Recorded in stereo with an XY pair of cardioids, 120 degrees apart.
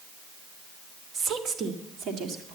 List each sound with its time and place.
1.1 s a woman speaking: 50° right, 1.6 m; by 2.5 s 70° right, 2.5 m